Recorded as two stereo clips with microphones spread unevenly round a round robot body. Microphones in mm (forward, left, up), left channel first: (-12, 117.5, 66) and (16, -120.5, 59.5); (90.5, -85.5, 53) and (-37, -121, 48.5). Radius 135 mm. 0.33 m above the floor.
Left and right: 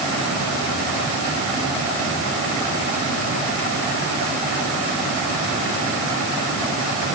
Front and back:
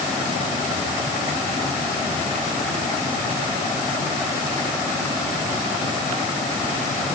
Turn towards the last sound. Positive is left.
No sound to turn to.